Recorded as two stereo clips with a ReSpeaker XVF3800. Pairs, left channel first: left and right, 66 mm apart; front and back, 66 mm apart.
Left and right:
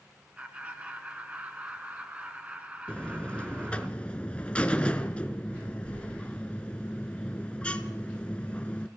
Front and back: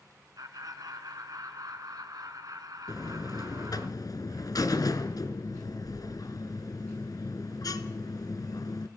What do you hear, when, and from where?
0.4 s laughter: 155° right, 3 m
2.9 s a buzzer: 20° left, 1.1 m